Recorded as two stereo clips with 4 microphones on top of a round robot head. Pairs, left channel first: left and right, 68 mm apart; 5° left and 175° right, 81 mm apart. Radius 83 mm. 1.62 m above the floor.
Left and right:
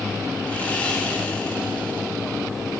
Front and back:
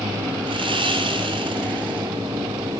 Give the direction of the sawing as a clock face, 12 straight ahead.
6 o'clock.